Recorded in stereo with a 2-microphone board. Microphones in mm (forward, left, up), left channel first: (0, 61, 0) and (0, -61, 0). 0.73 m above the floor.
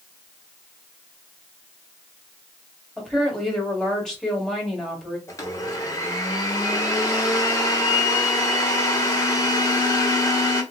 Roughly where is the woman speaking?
Centre.